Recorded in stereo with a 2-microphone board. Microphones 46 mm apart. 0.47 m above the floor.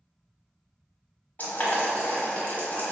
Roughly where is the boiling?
Left.